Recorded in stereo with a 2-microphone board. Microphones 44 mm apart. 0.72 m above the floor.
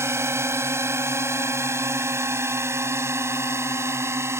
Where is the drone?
70° right (ahead or behind); by 4.4 s 75° right (ahead or behind).